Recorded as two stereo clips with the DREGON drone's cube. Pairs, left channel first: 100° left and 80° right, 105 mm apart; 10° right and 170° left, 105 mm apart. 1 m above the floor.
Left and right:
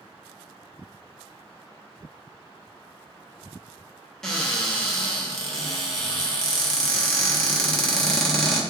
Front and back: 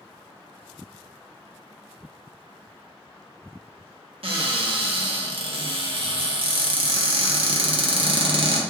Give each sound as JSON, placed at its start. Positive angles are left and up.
{"t": 4.2, "sound": "a cupboard door", "azimuth_deg": -175, "distance_m": 0.6}